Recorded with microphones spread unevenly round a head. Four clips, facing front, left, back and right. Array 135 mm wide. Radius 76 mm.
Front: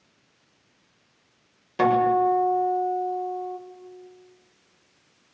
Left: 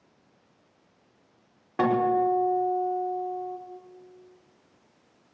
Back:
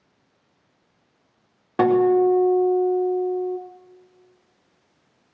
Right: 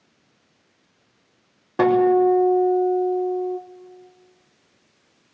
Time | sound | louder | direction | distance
1.8 | a guitar | right 7 dB, back 3 dB | 150° right | 5 m